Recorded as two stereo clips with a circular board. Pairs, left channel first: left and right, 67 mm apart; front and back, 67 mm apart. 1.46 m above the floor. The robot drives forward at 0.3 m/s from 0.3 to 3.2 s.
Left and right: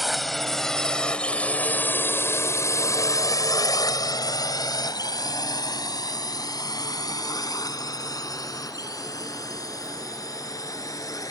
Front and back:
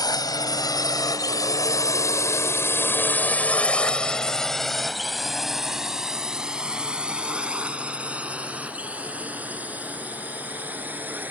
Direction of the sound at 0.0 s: Straight ahead.